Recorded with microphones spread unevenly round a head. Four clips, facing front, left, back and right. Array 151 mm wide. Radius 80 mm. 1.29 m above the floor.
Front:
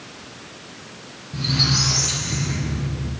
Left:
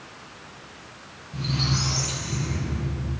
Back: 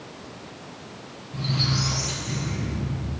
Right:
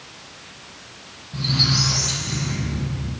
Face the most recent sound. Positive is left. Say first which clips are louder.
# right 3 dB, front 3 dB
turn(degrees=-10)